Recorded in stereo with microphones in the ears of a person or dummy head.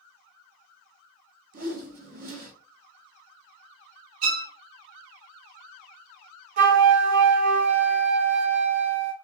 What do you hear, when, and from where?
1.5 s a whoosh: 50° right (ahead or behind), 0.8 m
4.2 s a violin: 35° right (ahead or behind), 0.8 m
6.6 s a flute: 45° right (ahead or behind), 0.8 m